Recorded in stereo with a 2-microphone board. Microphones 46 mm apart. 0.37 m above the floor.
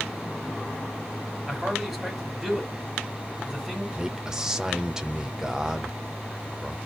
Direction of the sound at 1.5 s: 10° right (ahead or behind).